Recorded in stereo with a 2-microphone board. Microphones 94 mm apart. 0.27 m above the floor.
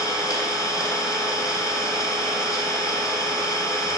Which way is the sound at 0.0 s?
35° left (ahead or behind).